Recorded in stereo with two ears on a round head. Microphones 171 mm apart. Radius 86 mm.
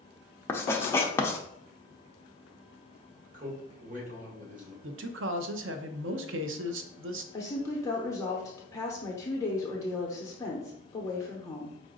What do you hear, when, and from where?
0.5 s writing: 15° left (ahead or behind), 0.6 m
3.3 s a man speaking: 45° right (ahead or behind), 1.6 m
4.8 s a man speaking: 65° right (ahead or behind), 0.6 m
7.3 s a woman speaking: 15° left (ahead or behind), 0.8 m